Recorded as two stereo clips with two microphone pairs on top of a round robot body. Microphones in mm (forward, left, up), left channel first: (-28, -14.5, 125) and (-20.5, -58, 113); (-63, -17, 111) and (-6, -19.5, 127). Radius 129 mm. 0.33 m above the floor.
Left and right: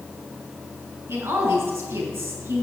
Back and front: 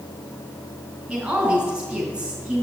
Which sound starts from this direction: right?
A woman speaking, at 1.1 s.